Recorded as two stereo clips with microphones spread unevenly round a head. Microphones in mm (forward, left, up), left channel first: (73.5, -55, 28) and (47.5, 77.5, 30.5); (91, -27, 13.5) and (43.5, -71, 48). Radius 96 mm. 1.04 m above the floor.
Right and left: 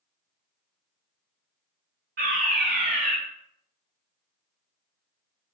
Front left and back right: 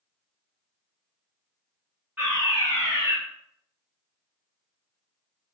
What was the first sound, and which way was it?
A fire alarm, 135° left.